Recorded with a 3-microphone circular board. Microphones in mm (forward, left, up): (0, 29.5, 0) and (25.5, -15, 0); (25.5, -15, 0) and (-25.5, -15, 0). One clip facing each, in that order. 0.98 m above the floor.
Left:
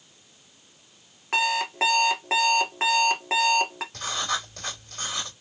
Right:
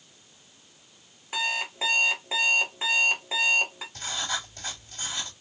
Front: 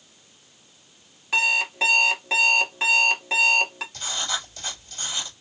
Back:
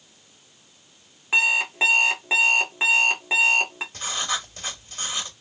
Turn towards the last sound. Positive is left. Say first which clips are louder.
# left 3 dB, back 2 dB
turn(degrees=125)